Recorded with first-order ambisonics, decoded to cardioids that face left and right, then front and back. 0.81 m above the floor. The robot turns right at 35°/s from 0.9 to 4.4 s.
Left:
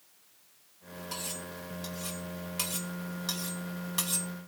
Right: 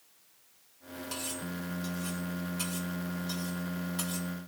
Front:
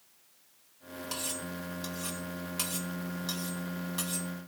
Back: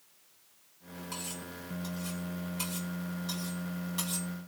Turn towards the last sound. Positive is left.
turn(degrees=100)